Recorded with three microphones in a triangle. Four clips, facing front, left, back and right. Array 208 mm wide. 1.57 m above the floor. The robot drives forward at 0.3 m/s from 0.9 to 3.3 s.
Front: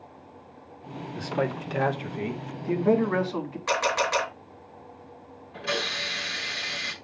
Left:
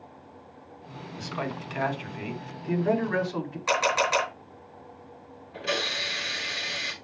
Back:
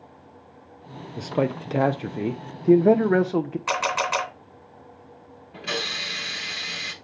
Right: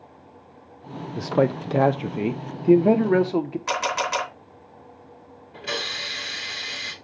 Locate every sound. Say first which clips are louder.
1.2 s a man speaking: right 12 dB, back 4 dB; 110° right, 0.7 m; by 3.6 s 140° right, 1.1 m
3.7 s a camera shutter: left 5 dB, front 3 dB; 160° right, 3 m
5.5 s a hiss: left 1 dB, front 1 dB; 150° right, 5.5 m